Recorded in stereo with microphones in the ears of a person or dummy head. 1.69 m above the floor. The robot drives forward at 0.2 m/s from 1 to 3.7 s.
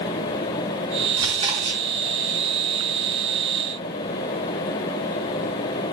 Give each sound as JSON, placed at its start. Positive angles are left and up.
{"t": 1.2, "sound": "chewing", "side_deg": -30, "distance_m": 2.0}